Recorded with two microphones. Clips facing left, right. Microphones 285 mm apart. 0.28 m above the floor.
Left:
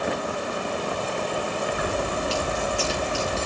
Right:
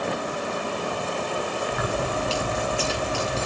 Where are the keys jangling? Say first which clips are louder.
Even; 65° right (ahead or behind), 2.5 m.